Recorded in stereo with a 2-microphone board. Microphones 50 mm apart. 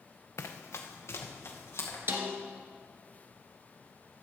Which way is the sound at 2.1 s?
55° right (ahead or behind).